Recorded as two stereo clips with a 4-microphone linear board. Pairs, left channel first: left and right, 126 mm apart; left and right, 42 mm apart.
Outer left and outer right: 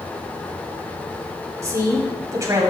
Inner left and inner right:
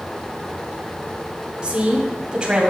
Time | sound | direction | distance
1.6 | a woman speaking | 25° right (ahead or behind) | 2 m